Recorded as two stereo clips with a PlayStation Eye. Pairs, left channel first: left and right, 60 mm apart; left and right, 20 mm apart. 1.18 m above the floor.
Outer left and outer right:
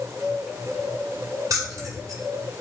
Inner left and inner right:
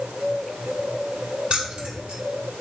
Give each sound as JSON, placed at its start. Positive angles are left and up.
{"t": 1.5, "sound": "keys jangling", "side_deg": -60, "distance_m": 2.5}